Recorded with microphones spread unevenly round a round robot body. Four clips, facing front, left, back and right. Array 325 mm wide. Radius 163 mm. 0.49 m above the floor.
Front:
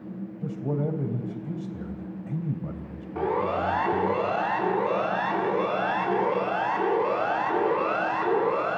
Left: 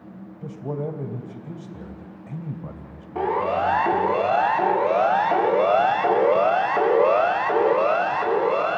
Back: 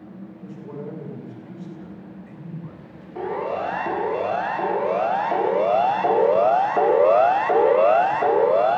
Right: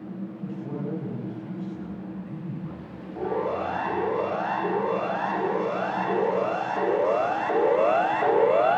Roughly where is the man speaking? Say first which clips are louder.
Left 5 dB, front 6 dB; ahead left.